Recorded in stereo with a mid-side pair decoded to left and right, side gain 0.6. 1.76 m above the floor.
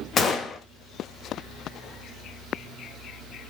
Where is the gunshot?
35° left, 0.7 m.